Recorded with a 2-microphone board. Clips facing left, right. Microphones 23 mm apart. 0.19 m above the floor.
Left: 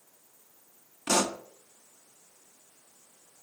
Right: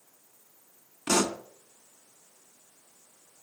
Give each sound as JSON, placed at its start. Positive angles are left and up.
{"t": 1.1, "sound": "a pop", "side_deg": 0, "distance_m": 0.6}